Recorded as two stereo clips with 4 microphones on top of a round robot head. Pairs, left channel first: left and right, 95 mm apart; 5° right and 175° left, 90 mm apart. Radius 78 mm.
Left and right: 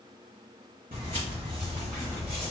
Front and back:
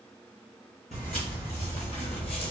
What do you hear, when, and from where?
0.9 s footsteps: 45° right, 1.5 m; by 2.5 s 10° left, 0.7 m